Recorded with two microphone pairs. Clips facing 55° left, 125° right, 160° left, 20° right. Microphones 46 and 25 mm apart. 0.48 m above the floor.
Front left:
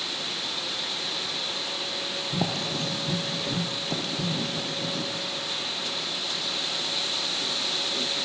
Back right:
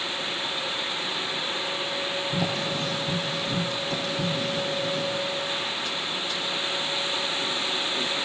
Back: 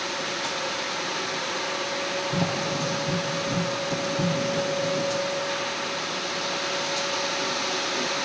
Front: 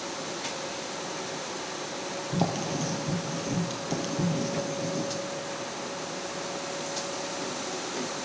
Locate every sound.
2.4 s writing: 20° left, 3.5 m